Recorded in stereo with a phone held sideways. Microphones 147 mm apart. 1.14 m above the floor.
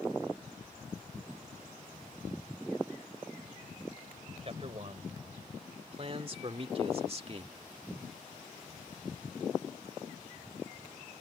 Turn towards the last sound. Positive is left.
turn(degrees=-40)  # may be behind; listen again after turning